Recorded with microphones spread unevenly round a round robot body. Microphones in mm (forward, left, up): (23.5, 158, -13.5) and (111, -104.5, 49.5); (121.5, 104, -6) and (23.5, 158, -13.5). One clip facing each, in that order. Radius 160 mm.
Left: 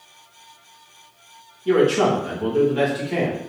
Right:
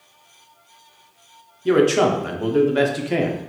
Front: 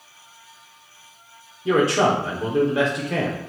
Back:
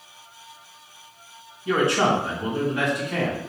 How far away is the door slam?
I don't hear a door slam.